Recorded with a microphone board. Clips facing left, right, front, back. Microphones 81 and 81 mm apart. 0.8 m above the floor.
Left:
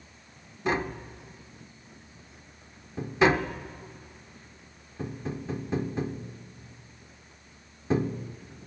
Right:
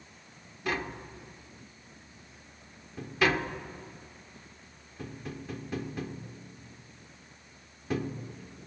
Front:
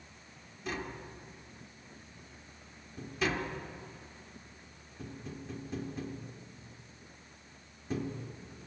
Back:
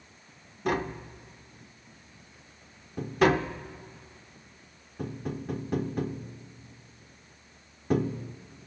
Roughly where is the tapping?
Behind left.